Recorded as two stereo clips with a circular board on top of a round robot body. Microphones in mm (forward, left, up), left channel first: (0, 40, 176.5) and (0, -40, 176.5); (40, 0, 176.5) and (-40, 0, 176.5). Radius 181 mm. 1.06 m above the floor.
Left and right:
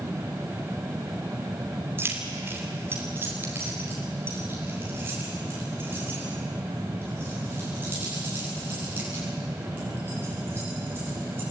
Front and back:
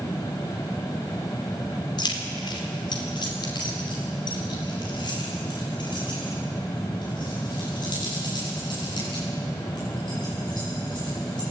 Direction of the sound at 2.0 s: 30° right.